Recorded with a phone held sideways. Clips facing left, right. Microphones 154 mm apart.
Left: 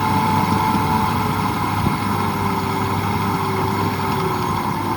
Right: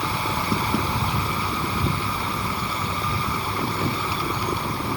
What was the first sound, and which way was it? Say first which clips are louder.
A machine running: left 9 dB; 60° left (ahead or behind).